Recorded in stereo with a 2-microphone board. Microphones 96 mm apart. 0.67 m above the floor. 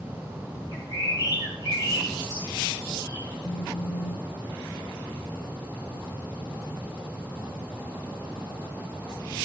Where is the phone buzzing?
75° left (ahead or behind), 2.0 m.